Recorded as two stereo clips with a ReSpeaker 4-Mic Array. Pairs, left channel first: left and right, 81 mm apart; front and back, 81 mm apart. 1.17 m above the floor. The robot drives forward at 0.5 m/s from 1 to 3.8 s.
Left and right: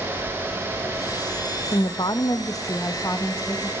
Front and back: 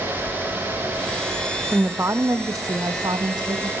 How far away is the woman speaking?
About 0.8 m.